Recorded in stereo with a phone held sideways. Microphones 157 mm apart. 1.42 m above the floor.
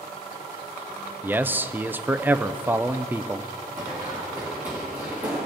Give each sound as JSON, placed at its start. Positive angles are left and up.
{"t": 1.2, "sound": "a man speaking", "side_deg": -10, "distance_m": 0.5}
{"t": 3.8, "sound": "running footsteps", "side_deg": -15, "distance_m": 4.0}